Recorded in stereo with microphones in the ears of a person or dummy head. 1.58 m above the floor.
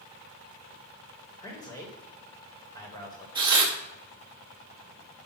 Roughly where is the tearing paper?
Centre.